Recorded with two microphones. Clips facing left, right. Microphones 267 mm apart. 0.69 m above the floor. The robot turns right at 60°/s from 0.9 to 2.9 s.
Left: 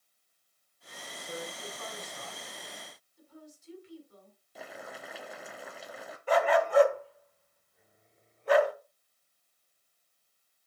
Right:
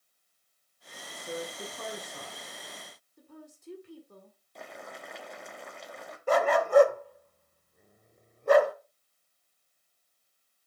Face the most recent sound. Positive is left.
turn(degrees=-50)  # may be behind; listen again after turning